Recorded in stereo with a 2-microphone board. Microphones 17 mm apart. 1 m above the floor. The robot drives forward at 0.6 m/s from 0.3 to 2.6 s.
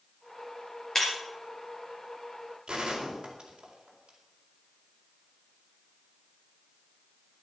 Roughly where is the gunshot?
Right.